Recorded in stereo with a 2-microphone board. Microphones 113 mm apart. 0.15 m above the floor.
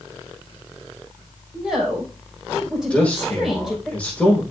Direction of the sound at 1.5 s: Centre (ahead or behind).